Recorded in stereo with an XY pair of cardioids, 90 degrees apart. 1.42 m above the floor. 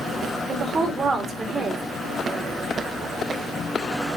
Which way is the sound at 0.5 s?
50° right.